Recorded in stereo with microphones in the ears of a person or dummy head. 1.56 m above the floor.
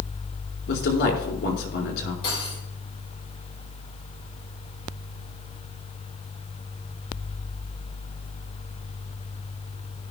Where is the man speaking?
60° left (ahead or behind), 4 m.